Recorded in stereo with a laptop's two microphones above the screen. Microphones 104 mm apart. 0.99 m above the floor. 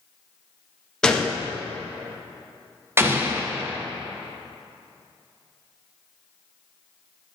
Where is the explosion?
20° right (ahead or behind), 0.6 m.